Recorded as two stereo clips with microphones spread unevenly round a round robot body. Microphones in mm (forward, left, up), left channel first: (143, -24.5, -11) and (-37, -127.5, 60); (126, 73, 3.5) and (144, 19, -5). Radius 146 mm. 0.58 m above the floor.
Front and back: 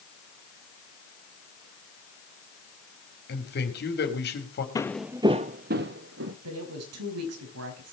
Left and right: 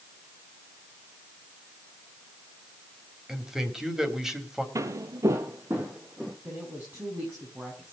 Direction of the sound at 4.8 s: 55° right.